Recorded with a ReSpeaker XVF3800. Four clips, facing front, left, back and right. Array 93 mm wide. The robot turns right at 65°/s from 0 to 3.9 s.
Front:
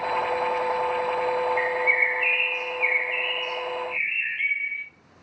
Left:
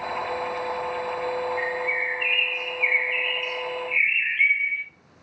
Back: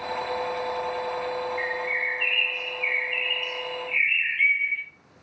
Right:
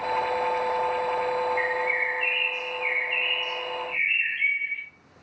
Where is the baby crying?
No baby crying in this recording.